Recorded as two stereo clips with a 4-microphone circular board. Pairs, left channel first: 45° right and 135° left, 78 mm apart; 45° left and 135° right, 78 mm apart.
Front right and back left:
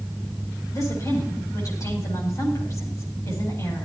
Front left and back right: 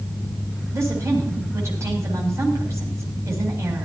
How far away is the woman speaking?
About 8 m.